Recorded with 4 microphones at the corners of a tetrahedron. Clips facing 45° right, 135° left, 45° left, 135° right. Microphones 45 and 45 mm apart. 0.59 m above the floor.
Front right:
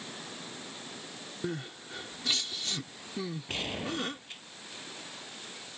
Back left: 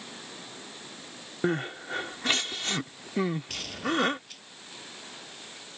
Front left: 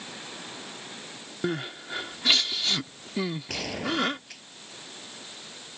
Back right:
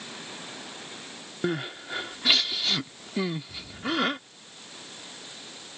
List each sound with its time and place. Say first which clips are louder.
1.4 s crying: back left 9 dB, back right 1 dB; 140° left
3.5 s a gunshot: back left 4 dB, front left 1 dB; 20° left